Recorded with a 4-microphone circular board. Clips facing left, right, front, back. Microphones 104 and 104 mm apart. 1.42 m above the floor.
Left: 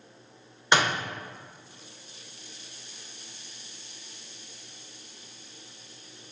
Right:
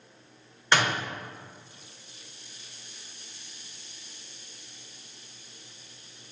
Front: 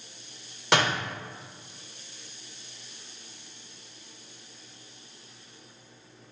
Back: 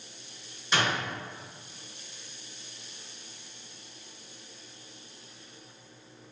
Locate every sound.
0.7 s a door slam: 15° left, 1.1 m